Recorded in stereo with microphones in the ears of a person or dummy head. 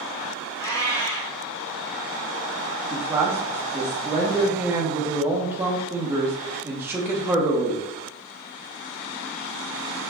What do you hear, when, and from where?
0.6 s a cat meowing: 20° left (ahead or behind), 0.9 m
2.9 s a man speaking: 15° right (ahead or behind), 0.7 m